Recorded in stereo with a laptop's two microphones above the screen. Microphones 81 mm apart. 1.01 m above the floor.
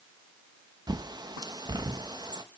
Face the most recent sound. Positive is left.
turn(degrees=-60)  # may be behind; listen again after turning